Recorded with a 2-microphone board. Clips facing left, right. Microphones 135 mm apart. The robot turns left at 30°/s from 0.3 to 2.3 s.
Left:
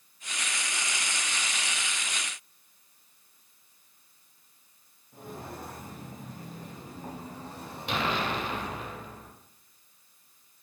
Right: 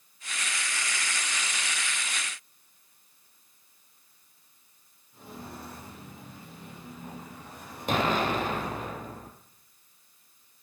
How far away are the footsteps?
About 7 m.